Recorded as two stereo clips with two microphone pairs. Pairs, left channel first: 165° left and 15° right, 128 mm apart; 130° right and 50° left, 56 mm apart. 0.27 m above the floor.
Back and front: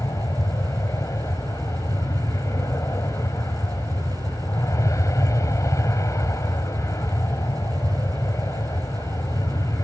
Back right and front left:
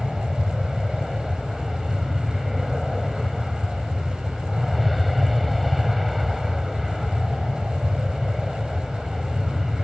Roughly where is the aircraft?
Behind left.